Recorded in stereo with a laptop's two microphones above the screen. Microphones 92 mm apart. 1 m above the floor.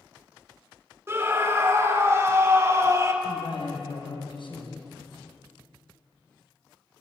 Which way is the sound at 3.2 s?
60° left (ahead or behind).